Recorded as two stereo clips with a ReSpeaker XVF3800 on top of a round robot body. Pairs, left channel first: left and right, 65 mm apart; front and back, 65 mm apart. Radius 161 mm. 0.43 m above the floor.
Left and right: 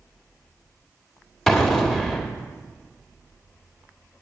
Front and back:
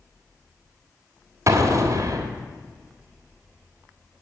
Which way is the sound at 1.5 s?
175° left.